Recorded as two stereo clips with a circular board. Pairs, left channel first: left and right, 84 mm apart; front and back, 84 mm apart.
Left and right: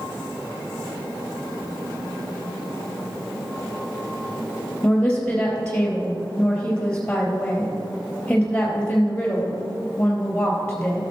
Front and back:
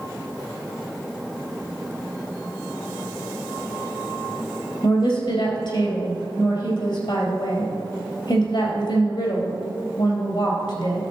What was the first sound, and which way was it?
A woman speaking, 15° left.